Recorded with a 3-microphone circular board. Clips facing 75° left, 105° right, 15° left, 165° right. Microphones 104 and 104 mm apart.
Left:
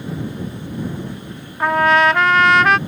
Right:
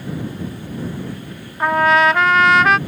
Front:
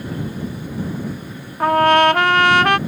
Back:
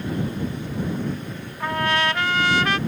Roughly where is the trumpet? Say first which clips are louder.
Even, front 10 dB; ahead.